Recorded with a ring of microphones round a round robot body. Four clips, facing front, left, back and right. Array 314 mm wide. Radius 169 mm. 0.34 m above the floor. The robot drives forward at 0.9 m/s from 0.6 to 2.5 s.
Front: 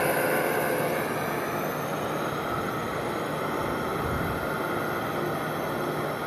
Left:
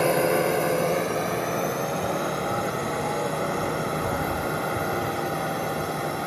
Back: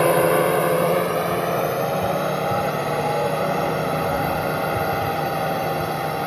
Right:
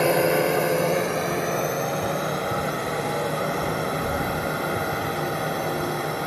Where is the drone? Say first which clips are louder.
Right 1 dB, back 8 dB; 170° right; by 6.3 s 175° right.